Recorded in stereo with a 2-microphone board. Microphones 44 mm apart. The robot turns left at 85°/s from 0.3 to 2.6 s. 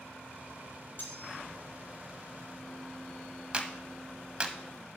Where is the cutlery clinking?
125° left, 1.9 m; by 1.4 s 90° left, 1.9 m.